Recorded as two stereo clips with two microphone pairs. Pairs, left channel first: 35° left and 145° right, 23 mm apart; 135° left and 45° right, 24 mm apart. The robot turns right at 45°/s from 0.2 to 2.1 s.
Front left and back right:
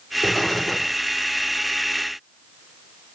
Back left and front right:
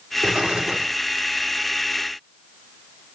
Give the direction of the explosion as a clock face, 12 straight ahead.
3 o'clock.